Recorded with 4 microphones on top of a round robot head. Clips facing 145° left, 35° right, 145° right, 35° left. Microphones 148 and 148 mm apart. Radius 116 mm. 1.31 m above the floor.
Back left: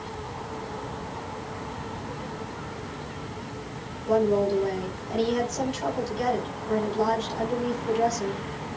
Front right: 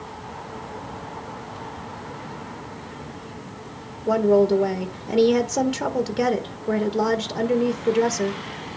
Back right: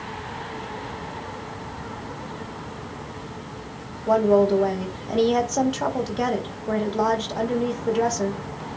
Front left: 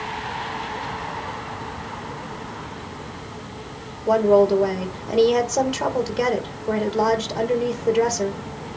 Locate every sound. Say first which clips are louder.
4.1 s a woman speaking: front right 5 dB, front left 2 dB; 50° right, 1.5 m